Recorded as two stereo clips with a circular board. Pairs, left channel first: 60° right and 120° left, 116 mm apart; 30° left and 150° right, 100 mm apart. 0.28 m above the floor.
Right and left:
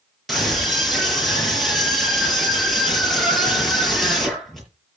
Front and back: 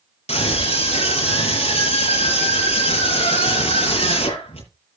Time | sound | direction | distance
0.3 | a scream | 30° left | 6.5 m